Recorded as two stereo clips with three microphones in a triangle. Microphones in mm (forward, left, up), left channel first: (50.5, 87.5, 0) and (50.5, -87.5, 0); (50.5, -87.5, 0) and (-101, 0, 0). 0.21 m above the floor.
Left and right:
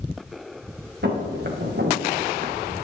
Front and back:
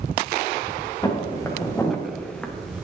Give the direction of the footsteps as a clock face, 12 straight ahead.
3 o'clock.